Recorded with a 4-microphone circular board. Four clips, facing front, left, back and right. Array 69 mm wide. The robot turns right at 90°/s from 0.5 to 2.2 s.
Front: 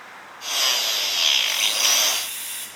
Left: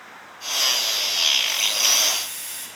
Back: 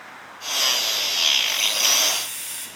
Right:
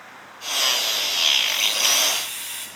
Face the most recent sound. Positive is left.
turn(degrees=-70)